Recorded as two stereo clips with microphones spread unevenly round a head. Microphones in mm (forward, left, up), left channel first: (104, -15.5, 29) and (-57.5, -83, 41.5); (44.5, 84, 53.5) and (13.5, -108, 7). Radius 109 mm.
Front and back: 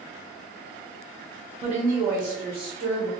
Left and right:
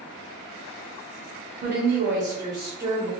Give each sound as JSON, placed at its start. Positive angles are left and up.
{"t": 1.6, "sound": "a woman speaking", "azimuth_deg": -105, "distance_m": 0.9}